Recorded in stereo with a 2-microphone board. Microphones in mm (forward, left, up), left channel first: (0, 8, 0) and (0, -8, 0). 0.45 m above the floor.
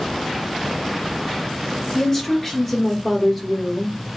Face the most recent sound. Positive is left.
turn(degrees=5)  # may be behind; listen again after turning